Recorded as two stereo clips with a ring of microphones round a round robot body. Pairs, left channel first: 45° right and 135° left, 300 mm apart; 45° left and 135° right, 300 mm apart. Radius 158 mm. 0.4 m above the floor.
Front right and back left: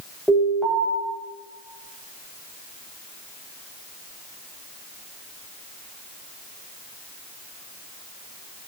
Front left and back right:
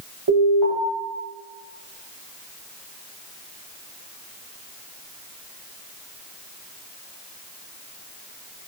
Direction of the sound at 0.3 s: 135° right.